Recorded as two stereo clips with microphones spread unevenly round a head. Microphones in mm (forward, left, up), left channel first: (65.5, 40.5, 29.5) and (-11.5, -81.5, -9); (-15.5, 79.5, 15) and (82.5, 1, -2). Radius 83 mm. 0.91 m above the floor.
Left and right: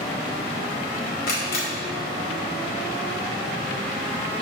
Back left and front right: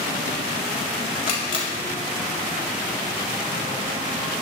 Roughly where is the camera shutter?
Left.